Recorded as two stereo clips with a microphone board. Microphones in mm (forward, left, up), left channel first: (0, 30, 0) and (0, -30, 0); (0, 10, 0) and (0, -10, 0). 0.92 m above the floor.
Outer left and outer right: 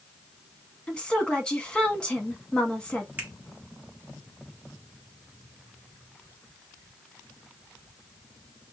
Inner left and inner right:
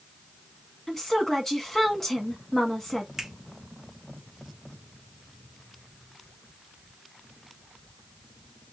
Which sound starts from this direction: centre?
A woman speaking, at 0.9 s.